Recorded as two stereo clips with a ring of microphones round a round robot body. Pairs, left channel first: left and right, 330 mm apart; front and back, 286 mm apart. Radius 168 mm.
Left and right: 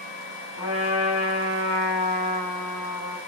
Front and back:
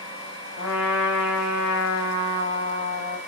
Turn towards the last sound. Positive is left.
turn(degrees=40)